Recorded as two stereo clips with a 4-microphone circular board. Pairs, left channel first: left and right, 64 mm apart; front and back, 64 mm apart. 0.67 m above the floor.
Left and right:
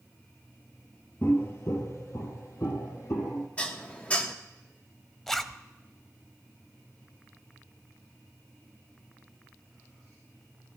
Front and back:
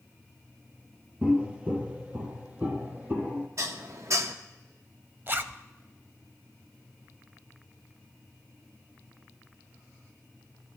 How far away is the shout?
I don't hear a shout.